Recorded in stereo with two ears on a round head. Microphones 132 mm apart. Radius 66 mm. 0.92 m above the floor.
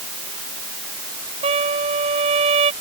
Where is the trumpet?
40° right (ahead or behind).